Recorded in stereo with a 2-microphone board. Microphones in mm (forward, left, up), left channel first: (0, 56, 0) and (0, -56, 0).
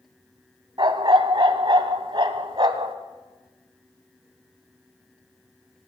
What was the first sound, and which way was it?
A dog barking, 45° right (ahead or behind).